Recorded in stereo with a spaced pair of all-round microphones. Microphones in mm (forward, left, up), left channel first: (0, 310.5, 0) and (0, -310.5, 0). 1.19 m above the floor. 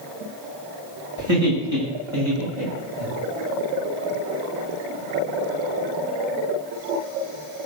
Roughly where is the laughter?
Right.